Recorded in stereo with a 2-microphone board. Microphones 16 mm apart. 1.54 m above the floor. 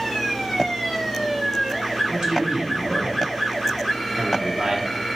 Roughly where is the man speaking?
Right.